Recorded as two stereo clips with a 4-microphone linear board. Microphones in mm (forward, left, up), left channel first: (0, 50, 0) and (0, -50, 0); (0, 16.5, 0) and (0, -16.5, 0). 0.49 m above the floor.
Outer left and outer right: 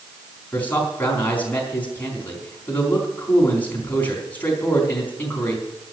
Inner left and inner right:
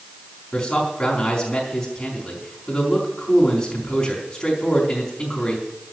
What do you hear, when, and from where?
0.5 s a man speaking: 15° left (ahead or behind), 4 m